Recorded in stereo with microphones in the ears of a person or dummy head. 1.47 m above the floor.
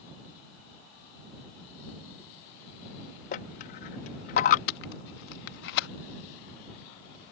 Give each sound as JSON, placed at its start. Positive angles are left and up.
{"t": 3.3, "sound": "a dropped coin", "side_deg": 40}
{"t": 4.7, "sound": "tape being pulled", "side_deg": 70}